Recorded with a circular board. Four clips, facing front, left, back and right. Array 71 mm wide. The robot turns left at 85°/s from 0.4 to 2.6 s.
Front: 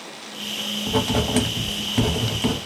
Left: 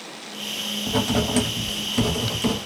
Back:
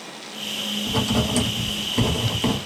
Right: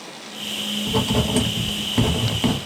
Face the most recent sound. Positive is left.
turn(degrees=-115)